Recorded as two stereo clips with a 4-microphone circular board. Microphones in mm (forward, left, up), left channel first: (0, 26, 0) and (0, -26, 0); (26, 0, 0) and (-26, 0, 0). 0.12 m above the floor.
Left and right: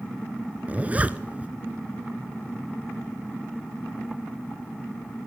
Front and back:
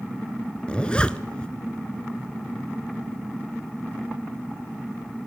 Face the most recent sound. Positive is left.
turn(degrees=-50)